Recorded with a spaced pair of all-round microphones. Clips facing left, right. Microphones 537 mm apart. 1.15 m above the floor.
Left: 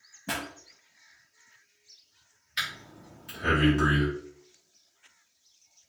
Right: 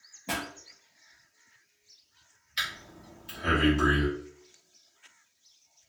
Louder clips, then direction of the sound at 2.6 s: Left 1 dB; 70° left (ahead or behind).